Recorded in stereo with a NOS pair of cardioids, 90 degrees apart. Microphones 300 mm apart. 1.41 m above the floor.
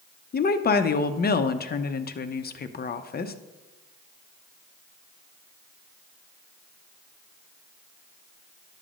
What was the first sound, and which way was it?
A woman speaking, 35° left.